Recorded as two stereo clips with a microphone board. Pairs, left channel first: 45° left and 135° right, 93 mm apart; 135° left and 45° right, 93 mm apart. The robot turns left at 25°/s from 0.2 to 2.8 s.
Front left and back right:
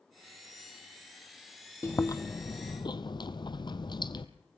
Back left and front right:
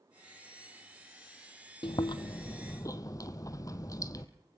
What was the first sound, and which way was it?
Chewing, 105° left.